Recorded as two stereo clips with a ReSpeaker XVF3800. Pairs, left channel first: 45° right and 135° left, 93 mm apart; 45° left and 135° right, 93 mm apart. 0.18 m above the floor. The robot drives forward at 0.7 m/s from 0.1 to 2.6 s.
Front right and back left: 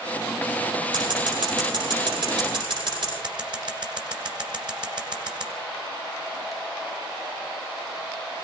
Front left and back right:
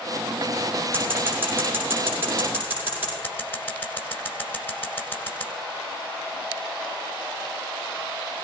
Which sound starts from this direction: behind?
Scissors, at 0.9 s.